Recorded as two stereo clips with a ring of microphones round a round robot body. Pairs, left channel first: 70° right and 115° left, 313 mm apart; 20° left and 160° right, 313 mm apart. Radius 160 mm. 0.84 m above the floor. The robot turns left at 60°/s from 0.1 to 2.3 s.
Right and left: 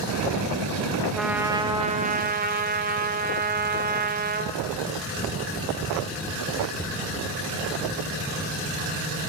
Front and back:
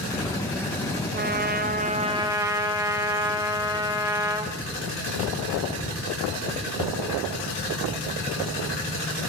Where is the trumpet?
155° right, 0.8 m; by 4.5 s 135° left, 0.8 m.